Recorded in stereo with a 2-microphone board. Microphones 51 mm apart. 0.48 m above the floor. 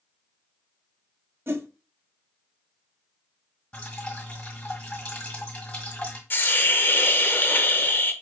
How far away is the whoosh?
About 0.5 m.